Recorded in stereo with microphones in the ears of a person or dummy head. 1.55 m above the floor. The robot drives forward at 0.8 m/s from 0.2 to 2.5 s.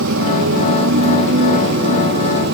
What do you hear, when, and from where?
0.0 s a motorcycle: 75° right (ahead or behind); by 2.5 s 55° right (ahead or behind)